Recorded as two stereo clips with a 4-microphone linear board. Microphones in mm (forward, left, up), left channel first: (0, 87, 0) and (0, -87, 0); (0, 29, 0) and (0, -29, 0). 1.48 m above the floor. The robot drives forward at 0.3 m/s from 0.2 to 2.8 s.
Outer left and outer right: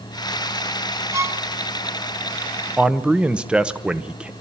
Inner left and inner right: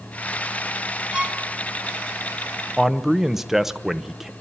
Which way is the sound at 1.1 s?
15° right (ahead or behind).